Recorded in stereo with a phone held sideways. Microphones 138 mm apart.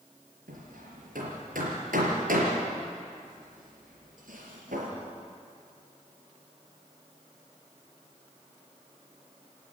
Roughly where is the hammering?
Right.